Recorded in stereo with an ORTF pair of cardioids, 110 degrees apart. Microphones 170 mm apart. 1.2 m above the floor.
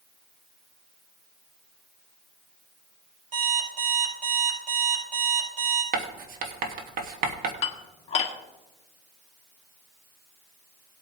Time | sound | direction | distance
3.3 | an alarm clock | 45° right | 5 m
5.9 | writing | 60° right | 1.5 m
7.6 | dishes clattering | 35° left | 1.6 m